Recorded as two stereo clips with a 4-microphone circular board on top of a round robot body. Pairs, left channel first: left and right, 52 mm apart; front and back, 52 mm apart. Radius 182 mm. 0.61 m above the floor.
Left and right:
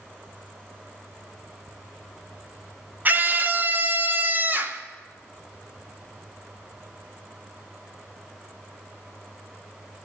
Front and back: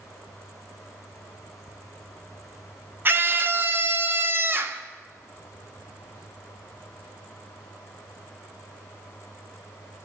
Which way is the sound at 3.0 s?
140° right.